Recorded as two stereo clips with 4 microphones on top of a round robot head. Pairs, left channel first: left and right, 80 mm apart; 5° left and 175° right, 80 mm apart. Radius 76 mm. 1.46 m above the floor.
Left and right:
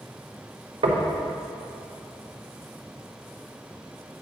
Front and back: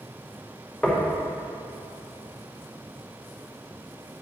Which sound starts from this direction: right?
Knocking, at 0.8 s.